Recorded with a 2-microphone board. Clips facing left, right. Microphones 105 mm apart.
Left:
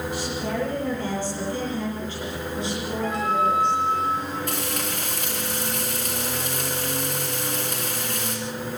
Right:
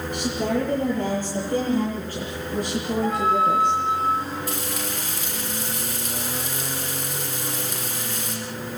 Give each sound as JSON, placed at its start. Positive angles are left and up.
{"t": 0.1, "sound": "a woman speaking", "side_deg": -50, "distance_m": 8.0}
{"t": 3.0, "sound": "a flute", "side_deg": -30, "distance_m": 8.5}
{"t": 4.5, "sound": "frying", "side_deg": 55, "distance_m": 7.0}